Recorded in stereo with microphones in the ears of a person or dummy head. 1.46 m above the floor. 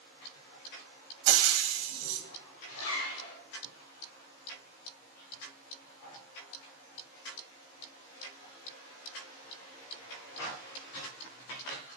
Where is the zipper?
75° left (ahead or behind), 1.8 m.